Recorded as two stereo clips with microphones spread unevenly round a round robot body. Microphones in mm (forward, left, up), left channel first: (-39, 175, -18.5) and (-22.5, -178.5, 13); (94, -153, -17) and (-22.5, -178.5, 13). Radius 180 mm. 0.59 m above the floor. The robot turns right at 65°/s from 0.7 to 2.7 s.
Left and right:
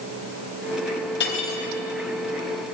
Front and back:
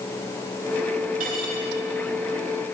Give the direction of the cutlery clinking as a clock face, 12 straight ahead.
7 o'clock.